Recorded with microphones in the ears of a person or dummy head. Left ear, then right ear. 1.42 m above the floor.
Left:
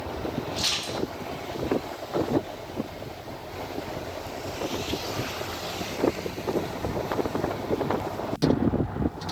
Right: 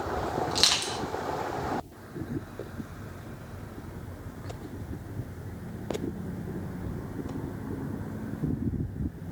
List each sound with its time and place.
0.5 s crushing: 50° right (ahead or behind), 1.0 m